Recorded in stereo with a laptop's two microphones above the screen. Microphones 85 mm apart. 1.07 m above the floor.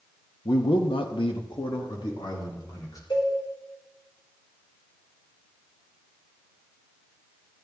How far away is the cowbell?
About 4.5 m.